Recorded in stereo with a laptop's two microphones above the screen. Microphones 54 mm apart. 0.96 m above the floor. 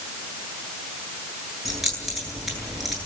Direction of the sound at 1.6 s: 5° right (ahead or behind).